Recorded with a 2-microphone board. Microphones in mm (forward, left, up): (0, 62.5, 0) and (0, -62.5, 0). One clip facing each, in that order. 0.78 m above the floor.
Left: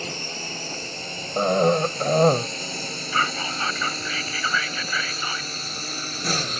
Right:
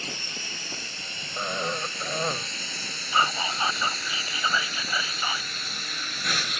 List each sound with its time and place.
0.0 s a drone: 40° left (ahead or behind); by 6.6 s 35° left (ahead or behind)
1.4 s a cough: 50° left (ahead or behind)
3.1 s whispering: 15° right (ahead or behind)